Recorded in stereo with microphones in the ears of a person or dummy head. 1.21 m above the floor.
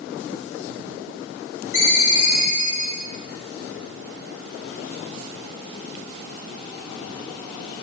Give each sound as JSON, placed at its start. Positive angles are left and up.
{"t": 1.7, "sound": "a ringtone", "side_deg": 55, "distance_m": 2.5}